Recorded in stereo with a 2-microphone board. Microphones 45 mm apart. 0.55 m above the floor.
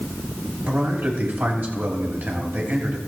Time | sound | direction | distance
0.7 | a man speaking | 45° right (ahead or behind) | 3 m